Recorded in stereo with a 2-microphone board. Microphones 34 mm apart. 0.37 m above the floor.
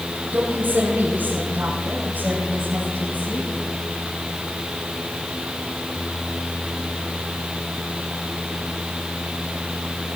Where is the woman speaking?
55° right (ahead or behind), 5 m; by 3.5 s 45° right (ahead or behind), 7.5 m.